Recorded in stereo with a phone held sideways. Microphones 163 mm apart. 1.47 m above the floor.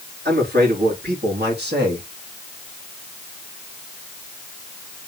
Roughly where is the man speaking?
Right.